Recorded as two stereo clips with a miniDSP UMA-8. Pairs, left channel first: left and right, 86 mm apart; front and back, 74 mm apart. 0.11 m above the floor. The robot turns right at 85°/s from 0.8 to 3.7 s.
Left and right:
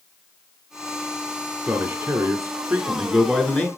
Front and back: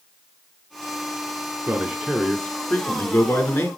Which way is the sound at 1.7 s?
135° right.